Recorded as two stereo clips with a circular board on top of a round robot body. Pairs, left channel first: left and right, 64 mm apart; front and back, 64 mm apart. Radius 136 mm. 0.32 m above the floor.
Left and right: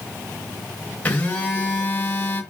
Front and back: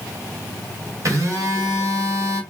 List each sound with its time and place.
1.1 s a phone buzzing: 155° left, 2.5 m